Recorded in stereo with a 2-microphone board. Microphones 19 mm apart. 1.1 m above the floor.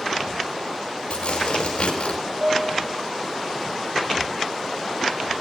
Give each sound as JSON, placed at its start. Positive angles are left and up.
{"t": 1.1, "sound": "tearing paper", "side_deg": 70, "distance_m": 4.5}
{"t": 2.4, "sound": "a piano", "side_deg": -80, "distance_m": 3.0}